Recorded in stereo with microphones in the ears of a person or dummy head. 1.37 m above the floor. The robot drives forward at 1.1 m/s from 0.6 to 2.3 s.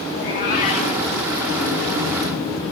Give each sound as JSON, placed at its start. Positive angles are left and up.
{"t": 0.1, "sound": "a cat meowing", "side_deg": 30, "distance_m": 1.1}